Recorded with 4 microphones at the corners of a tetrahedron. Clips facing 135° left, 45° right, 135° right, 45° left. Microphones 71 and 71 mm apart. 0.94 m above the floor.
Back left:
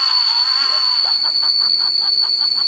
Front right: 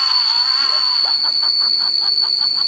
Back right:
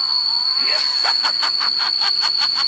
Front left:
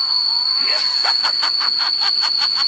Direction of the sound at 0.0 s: 65° left.